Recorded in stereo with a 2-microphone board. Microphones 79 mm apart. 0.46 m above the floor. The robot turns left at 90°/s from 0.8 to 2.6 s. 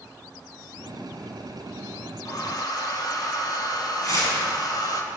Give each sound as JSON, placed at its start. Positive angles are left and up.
{"t": 2.2, "sound": "a hair dryer", "azimuth_deg": 115, "distance_m": 1.5}
{"t": 4.0, "sound": "tearing paper", "side_deg": 45, "distance_m": 4.0}